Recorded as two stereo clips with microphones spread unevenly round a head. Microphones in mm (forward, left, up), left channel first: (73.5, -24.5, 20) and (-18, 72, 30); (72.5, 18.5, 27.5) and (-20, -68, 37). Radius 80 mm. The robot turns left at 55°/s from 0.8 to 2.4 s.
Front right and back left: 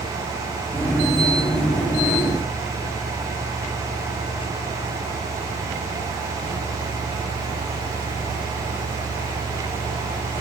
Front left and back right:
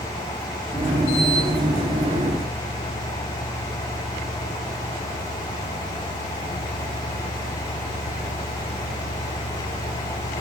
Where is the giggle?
No giggle in this recording.